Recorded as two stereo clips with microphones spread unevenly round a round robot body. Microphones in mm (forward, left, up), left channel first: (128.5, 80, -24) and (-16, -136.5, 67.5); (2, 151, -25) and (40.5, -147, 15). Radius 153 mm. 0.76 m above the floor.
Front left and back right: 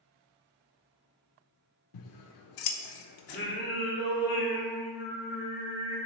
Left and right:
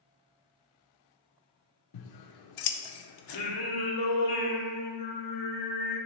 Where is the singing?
110° left, 1.9 m.